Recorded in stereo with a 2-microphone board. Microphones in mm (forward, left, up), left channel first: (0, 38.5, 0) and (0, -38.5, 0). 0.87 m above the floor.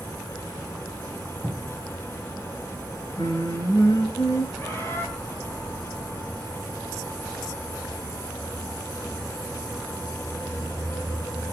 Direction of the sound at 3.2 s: 50° left (ahead or behind).